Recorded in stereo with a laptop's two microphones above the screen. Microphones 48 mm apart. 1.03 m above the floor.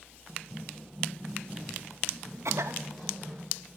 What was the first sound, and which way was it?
Running footsteps, 15° right (ahead or behind).